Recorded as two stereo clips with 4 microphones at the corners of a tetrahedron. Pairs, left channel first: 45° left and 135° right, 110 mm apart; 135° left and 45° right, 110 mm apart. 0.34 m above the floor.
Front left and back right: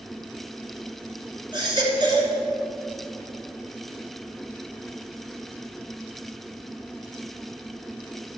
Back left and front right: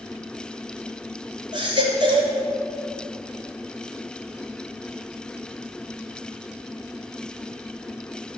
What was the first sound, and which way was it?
A baby crying, 90° right.